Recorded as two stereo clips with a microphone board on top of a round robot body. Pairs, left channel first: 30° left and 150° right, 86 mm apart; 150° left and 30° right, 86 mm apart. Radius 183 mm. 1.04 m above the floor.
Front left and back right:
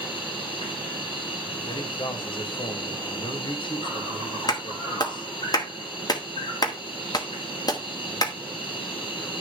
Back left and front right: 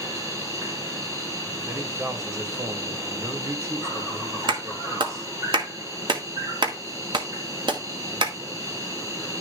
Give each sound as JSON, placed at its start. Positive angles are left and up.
{"t": 0.0, "sound": "an insect", "azimuth_deg": 20, "distance_m": 1.5}
{"t": 1.6, "sound": "a man speaking", "azimuth_deg": 20, "distance_m": 2.5}
{"t": 4.5, "sound": "a clap", "azimuth_deg": -10, "distance_m": 1.6}